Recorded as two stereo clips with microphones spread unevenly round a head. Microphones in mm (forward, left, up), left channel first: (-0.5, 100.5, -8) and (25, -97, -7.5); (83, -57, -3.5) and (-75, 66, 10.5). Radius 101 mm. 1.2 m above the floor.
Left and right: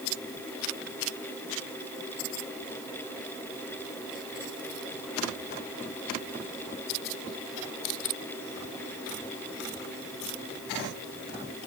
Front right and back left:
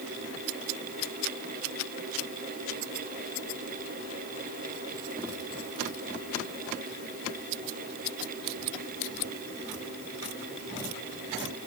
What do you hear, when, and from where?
Only background noise.